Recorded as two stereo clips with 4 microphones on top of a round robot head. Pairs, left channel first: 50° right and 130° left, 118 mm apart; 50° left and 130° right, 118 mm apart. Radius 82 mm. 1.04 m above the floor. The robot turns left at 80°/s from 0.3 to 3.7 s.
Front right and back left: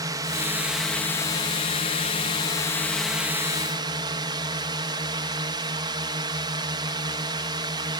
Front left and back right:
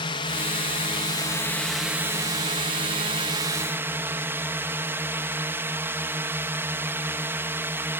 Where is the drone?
80° left; by 8.0 s 165° left.